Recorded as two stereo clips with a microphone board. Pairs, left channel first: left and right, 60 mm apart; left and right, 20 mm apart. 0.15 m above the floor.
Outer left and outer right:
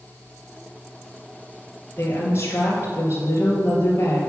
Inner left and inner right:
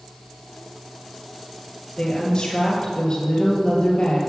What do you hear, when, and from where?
2.0 s a woman speaking: 40° left (ahead or behind), 3 m